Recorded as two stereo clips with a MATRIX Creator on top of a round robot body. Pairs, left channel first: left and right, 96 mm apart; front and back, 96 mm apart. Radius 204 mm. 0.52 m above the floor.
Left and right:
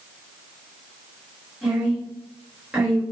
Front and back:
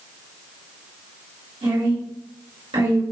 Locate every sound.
1.6 s a woman speaking: 170° right, 3.5 m